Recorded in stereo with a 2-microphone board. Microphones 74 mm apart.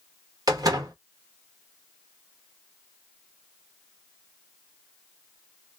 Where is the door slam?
55° right (ahead or behind), 1.4 m.